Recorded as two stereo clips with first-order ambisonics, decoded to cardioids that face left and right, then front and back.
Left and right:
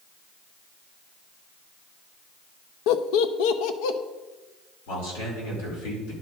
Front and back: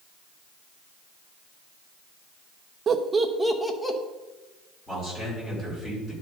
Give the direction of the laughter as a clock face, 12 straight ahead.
8 o'clock.